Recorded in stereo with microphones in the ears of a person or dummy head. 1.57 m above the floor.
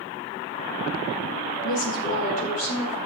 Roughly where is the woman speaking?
Left.